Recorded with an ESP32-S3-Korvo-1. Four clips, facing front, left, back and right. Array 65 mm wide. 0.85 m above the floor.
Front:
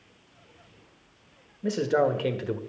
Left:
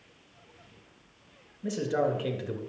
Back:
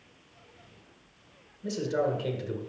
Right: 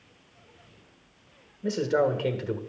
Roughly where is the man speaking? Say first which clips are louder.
Right 4 dB, front 5 dB; ahead.